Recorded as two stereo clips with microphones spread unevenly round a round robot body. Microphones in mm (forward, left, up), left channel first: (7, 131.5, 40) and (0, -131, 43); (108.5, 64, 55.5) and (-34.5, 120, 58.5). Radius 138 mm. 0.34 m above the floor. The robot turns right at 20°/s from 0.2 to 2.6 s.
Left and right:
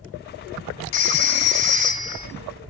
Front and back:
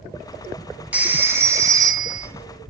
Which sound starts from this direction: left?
A phone ringing, at 0.9 s.